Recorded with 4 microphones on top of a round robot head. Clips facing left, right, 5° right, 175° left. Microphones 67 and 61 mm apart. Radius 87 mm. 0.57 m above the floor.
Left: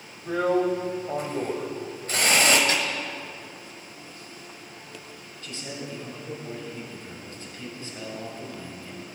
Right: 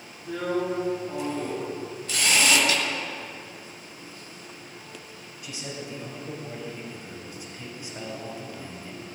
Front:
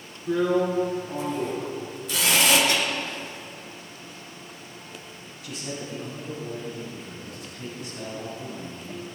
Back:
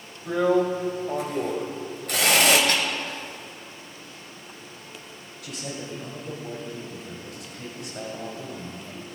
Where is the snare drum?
145° left, 2.5 m.